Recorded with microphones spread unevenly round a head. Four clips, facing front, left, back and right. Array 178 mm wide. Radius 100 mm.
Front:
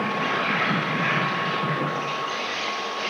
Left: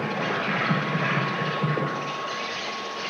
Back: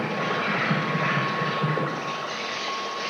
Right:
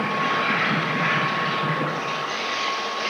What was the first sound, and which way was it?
An insect, 130° left.